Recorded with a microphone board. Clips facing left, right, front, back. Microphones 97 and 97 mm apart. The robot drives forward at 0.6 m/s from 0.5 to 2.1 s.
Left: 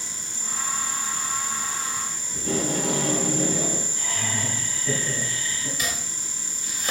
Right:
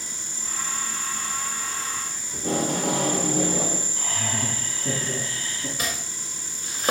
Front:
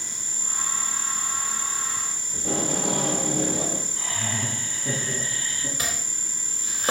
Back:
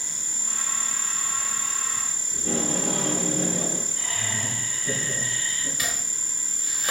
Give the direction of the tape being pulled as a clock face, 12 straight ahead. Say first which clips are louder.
Right 1 dB, even; 2 o'clock.